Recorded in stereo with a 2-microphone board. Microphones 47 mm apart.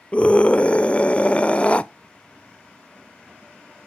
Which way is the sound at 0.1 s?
25° left (ahead or behind).